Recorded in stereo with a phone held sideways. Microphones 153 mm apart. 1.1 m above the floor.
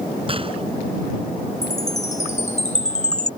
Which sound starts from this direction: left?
A chime, at 1.6 s.